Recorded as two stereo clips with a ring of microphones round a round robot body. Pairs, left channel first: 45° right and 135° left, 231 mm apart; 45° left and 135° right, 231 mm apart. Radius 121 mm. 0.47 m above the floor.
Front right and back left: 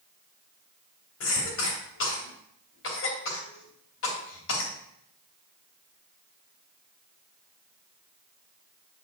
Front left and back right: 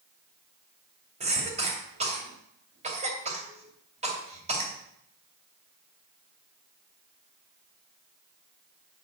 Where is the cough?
75° right, 2.5 m.